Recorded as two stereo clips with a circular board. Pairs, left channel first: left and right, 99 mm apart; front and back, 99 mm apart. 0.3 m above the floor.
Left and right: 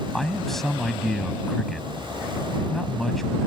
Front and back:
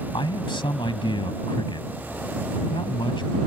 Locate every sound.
0.1 s a man speaking: 5° left